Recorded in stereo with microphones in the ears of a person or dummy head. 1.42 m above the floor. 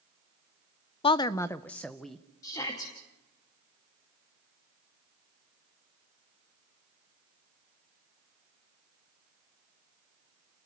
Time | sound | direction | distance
1.0 | a woman speaking | 25° left (ahead or behind) | 0.6 m
2.4 | a shout | 20° left (ahead or behind) | 2.5 m